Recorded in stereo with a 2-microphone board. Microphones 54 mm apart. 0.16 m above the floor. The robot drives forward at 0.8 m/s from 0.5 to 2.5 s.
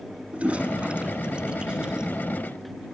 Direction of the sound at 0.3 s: 25° right (ahead or behind).